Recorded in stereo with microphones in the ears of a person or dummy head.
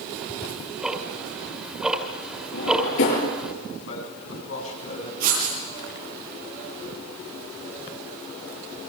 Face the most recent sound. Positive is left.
turn(degrees=-55)  # may be behind; listen again after turning